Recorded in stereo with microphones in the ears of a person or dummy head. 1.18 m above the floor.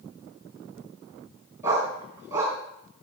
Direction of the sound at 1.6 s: 10° right (ahead or behind).